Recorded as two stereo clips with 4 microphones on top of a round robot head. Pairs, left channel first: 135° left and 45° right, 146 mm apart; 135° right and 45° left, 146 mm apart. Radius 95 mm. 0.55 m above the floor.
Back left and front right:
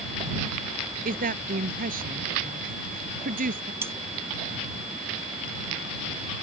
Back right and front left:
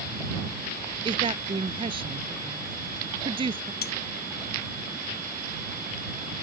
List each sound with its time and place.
1.1 s a woman speaking: 15° right
3.8 s cutlery clinking: 120° right